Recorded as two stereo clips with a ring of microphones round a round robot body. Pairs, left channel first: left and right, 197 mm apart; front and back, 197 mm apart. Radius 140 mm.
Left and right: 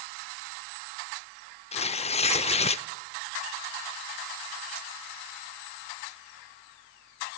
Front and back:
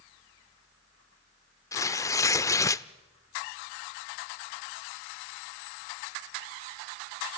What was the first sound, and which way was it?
Tearing paper, 65° left.